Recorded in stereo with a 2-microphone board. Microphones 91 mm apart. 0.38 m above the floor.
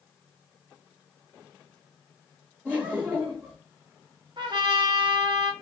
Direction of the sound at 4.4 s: 60° right (ahead or behind).